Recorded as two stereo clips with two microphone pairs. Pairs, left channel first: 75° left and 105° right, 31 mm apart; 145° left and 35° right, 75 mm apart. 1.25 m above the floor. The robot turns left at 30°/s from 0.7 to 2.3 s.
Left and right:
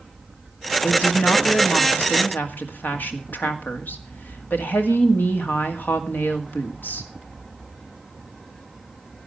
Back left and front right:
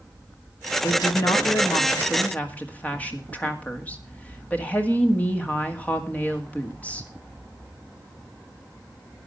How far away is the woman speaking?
About 1.9 m.